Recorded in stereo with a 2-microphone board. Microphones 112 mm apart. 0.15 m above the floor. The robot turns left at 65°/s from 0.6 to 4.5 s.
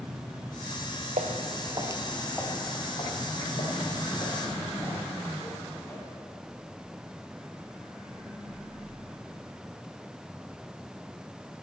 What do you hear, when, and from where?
1.2 s footsteps: 85° right, 1.3 m; by 6.0 s 25° left (ahead or behind), 6 m